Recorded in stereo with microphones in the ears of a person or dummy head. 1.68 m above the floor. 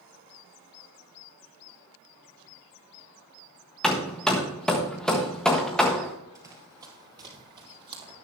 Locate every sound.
3.8 s hammering: 5° left (ahead or behind), 1.3 m
6.3 s running footsteps: 15° right (ahead or behind), 2.5 m; by 8.1 s 20° right (ahead or behind), 3.5 m